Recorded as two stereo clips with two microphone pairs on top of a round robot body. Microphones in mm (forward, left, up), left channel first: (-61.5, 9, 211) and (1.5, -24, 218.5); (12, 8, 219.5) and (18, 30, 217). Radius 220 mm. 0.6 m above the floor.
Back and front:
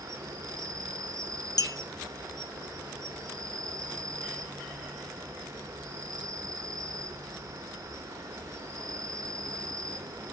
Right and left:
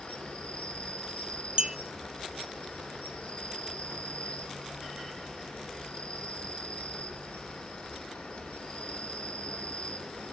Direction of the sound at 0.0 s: 75° right.